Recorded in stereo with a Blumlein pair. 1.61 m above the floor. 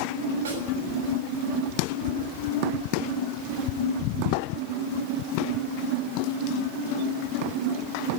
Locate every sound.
0.5 s a snare drum: 65° right, 6 m